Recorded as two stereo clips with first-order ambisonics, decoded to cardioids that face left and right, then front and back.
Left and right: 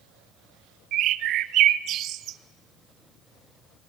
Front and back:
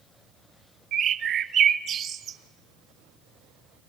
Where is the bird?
130° right, 0.8 m.